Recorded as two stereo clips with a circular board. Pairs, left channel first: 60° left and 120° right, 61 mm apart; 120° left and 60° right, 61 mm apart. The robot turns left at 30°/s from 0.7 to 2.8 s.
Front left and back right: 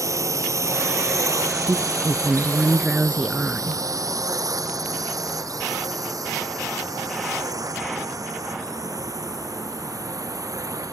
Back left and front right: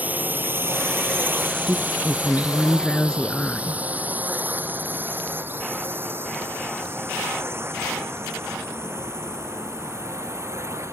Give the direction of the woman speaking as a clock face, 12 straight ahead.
5 o'clock.